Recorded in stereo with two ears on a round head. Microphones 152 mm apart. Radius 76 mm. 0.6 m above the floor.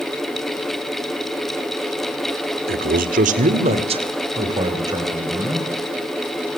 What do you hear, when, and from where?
2.7 s a man speaking: 60° right (ahead or behind), 2 m; by 5.7 s 15° right (ahead or behind), 4.5 m